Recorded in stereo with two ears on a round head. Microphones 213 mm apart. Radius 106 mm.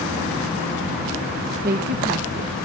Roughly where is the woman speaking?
Right.